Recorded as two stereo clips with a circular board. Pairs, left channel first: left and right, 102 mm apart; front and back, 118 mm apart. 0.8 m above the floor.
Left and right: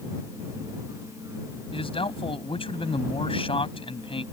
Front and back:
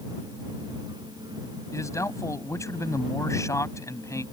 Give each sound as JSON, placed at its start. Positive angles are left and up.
{"t": 1.7, "sound": "a man speaking", "azimuth_deg": 65}